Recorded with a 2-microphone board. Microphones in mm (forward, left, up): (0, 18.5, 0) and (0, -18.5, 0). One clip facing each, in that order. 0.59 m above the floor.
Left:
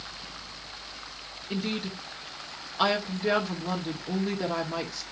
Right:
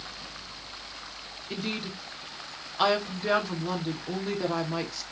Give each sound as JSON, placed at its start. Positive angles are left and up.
{"t": 1.5, "sound": "a woman speaking", "side_deg": -5, "distance_m": 1.2}